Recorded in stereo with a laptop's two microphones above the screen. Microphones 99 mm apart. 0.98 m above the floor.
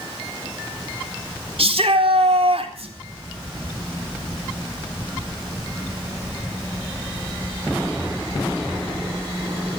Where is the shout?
70° right (ahead or behind), 3.5 m.